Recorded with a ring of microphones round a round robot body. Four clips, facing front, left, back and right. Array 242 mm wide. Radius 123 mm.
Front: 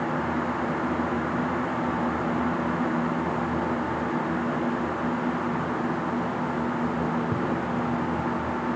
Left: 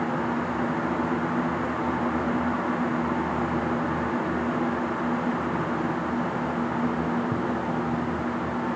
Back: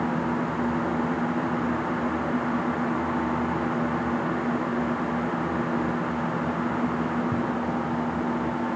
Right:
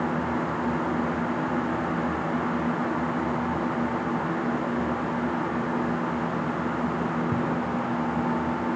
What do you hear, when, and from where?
Only background noise.